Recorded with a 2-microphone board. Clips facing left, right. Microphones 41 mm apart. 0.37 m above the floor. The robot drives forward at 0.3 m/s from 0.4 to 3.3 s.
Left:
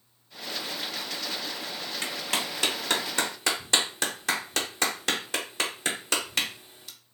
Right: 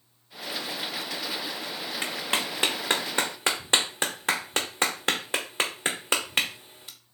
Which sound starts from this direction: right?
A clap, at 2.0 s.